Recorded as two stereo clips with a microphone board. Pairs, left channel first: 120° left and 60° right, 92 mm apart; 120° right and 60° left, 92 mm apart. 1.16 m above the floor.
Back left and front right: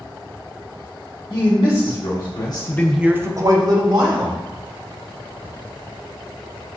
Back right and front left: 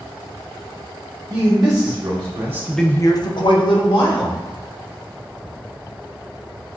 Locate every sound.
1.3 s a man speaking: 100° left, 1.7 m; by 4.4 s 95° right, 1.7 m